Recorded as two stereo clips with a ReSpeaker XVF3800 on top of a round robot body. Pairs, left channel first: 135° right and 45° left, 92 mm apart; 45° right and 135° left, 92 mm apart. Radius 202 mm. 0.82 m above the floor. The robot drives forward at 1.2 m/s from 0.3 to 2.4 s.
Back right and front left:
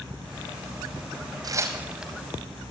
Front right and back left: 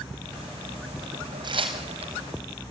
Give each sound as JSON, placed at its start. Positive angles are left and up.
{"t": 1.4, "sound": "tearing paper", "azimuth_deg": 95, "distance_m": 1.1}